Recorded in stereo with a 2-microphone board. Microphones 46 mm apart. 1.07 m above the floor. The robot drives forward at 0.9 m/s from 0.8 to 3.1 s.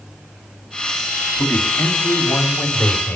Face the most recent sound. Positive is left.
turn(degrees=45)  # may be behind; listen again after turning